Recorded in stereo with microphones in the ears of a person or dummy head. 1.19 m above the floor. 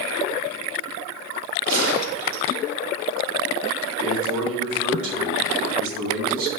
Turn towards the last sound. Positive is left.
turn(degrees=-75)  # may be behind; listen again after turning